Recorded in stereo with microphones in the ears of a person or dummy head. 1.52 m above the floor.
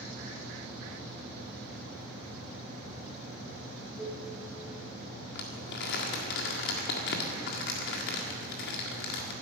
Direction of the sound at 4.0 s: 20° left (ahead or behind).